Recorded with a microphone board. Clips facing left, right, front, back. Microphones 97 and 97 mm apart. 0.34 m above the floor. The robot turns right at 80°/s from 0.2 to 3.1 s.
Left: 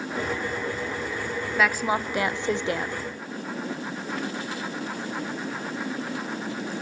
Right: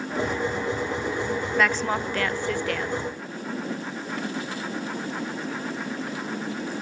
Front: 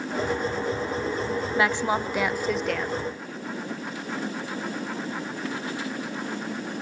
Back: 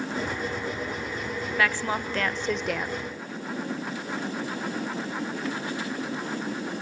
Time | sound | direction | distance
1.6 | a woman speaking | 5° left | 0.9 m